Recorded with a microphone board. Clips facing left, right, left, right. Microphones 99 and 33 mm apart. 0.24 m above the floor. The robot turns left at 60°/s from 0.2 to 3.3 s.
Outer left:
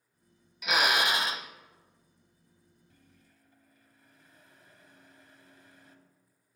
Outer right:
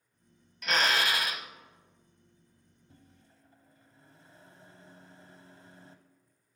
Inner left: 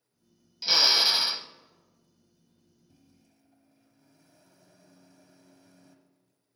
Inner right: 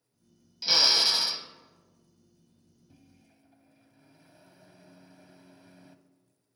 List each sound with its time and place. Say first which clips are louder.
0.6 s a drill: outer left 1 dB, inner left 1 dB; 175° left, 0.5 m; by 1.5 s 125° left, 0.5 m
2.9 s a microwave: outer right 6 dB, inner right 4 dB; 30° right (ahead or behind), 0.9 m